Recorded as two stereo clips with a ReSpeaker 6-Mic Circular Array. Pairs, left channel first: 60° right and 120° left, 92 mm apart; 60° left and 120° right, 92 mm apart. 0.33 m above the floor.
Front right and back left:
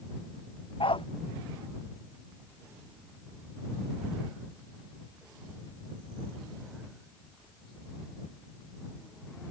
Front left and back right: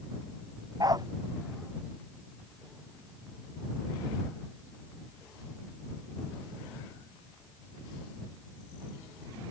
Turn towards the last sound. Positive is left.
turn(degrees=-75)